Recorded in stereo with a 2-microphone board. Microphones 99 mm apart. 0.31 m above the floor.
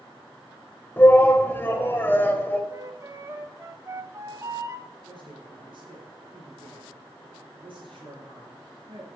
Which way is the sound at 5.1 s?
55° right (ahead or behind).